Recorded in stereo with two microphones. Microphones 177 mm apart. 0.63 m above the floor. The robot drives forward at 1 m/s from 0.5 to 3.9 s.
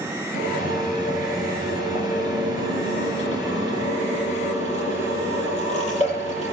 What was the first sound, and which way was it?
A drill, 50° left (ahead or behind).